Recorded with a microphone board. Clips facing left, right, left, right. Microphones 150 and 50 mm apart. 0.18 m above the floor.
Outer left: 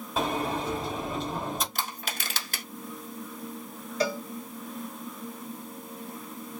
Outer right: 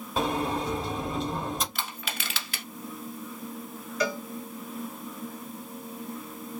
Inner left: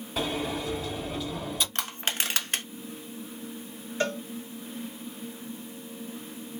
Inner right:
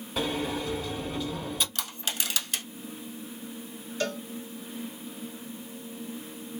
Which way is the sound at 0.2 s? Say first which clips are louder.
Outer right 1 dB, even; centre (ahead or behind).